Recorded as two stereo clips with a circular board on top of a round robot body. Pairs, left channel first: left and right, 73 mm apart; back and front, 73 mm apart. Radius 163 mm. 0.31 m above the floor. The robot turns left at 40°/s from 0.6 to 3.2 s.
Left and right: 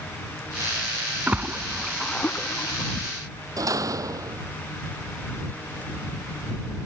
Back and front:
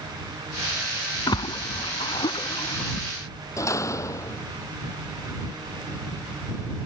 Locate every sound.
1.3 s a splash: 155° right; by 3.1 s 130° left
3.6 s a door slam: 130° right